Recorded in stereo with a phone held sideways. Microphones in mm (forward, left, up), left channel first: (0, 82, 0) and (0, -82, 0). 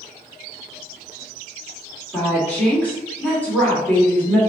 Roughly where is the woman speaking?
Centre.